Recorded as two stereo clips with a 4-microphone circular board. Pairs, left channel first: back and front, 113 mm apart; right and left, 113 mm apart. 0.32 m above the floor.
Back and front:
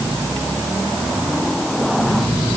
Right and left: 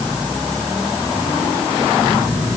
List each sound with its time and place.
Only background noise.